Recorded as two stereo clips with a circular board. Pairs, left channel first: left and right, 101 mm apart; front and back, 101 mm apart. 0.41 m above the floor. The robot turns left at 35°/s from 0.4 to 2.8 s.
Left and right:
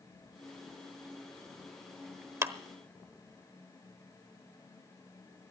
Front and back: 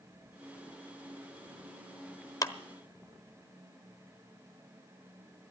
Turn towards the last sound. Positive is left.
turn(degrees=-50)